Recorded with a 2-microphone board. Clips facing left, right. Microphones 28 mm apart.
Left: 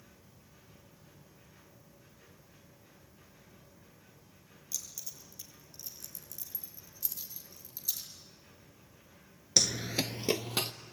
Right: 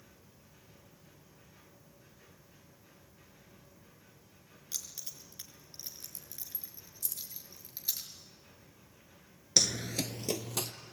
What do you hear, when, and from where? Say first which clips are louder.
4.7 s keys jangling: even; 50° right (ahead or behind), 5 m; by 8.0 s 35° right (ahead or behind), 6.5 m
7.0 s keys jangling: right 1 dB; 15° left (ahead or behind), 0.8 m
9.6 s running footsteps: left 1 dB; centre (ahead or behind), 0.5 m; by 10.7 s 40° left (ahead or behind), 1.4 m